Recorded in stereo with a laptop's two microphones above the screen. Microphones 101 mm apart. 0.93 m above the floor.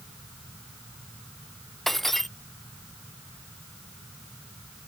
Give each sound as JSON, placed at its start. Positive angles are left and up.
{"t": 1.9, "sound": "breaking glass", "side_deg": 0}